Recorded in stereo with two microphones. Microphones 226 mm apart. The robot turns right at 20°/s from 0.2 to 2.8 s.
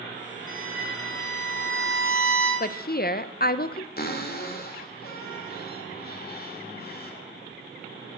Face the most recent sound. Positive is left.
turn(degrees=45)  # may be behind; listen again after turning